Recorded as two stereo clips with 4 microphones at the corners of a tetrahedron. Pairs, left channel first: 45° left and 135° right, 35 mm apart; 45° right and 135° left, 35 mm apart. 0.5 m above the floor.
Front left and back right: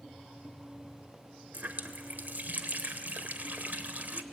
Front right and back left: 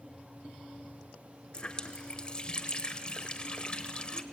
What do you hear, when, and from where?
1.5 s a running tap: 105° right, 1.1 m